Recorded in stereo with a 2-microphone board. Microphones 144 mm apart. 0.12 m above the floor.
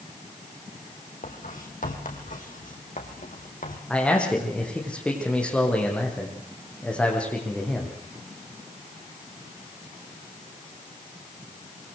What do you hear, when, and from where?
1.2 s writing: 65° left (ahead or behind), 3.5 m
3.9 s a man speaking: 10° left (ahead or behind), 7 m